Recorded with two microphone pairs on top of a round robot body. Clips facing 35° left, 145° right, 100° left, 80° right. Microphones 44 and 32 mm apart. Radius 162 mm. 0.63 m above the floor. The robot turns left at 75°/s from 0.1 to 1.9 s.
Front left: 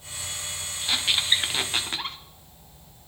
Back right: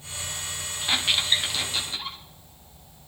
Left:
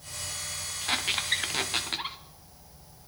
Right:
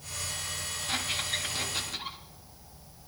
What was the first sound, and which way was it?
A squeak, 145° left.